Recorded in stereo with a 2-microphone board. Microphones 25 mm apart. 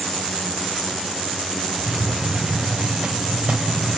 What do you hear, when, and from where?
1.8 s a hiss: 45° right (ahead or behind), 3.5 m